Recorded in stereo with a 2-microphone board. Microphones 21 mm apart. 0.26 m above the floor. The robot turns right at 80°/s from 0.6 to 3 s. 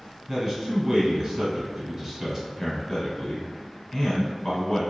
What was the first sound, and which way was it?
A man speaking, 150° right.